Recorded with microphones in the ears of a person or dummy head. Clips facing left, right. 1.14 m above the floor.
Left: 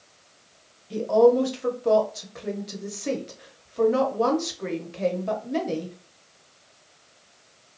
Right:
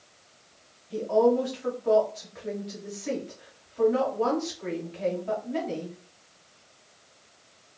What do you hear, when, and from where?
0.9 s a woman speaking: 50° left (ahead or behind), 0.9 m